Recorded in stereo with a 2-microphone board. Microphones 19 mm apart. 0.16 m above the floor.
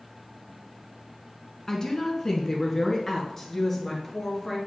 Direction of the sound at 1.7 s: 30° left (ahead or behind).